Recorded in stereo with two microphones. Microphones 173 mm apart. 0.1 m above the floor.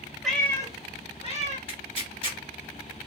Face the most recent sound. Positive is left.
turn(degrees=30)  # may be behind; listen again after turning